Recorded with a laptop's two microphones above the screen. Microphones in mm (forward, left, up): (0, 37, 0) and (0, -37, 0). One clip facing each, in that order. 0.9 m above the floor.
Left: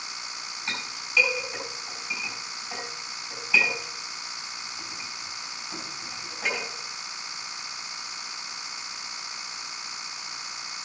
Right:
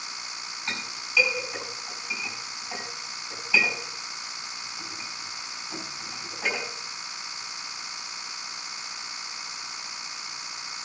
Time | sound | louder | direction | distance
0.7 | a clink | even | 5° left (ahead or behind) | 4 m